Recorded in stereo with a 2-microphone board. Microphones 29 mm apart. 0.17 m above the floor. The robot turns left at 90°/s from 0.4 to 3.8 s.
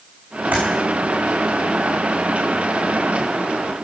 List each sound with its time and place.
0.5 s typing on a keyboard: 80° right, 6.5 m; by 0.6 s 85° right, 6.5 m